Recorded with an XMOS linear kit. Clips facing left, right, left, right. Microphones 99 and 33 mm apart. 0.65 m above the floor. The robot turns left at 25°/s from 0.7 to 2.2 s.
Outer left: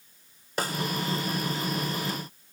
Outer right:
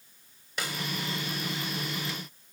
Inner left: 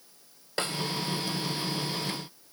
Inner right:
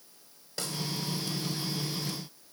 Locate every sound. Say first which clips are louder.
0.6 s a snare drum: outer left 6 dB, inner left 6 dB; 40° left (ahead or behind), 1.6 m